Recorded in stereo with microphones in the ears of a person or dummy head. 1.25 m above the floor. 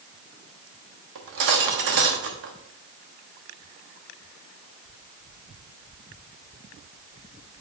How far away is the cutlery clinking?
About 1.0 m.